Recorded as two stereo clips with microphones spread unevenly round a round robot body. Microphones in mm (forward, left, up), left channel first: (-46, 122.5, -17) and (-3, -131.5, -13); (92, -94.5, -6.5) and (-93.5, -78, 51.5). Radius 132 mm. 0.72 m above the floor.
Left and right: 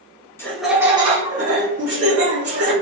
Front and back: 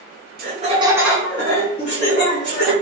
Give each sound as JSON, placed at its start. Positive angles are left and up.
{"t": 0.4, "sound": "laughter", "azimuth_deg": 170, "distance_m": 1.2}